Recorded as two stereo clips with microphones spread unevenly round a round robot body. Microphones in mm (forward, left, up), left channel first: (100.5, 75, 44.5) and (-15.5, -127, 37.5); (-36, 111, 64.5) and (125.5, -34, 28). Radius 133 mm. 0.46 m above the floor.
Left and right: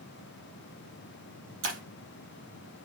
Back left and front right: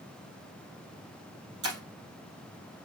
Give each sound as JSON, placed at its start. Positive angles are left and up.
{"t": 1.6, "sound": "breaking glass", "azimuth_deg": -90, "distance_m": 4.0}